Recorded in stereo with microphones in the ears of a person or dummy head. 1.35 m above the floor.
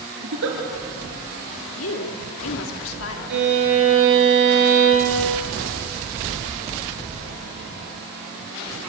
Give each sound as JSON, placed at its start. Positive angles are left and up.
{"t": 0.2, "sound": "a giggle", "side_deg": -70, "distance_m": 5.0}
{"t": 1.8, "sound": "a woman speaking", "side_deg": 85, "distance_m": 3.0}
{"t": 3.3, "sound": "a violin", "side_deg": -65, "distance_m": 6.5}